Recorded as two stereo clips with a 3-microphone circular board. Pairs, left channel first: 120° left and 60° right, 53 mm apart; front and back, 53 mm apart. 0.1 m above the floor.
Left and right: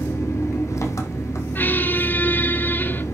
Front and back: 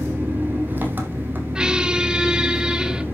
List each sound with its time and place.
0.0 s an engine running: 125° left, 3 m
1.6 s a squeak: 115° left, 0.9 m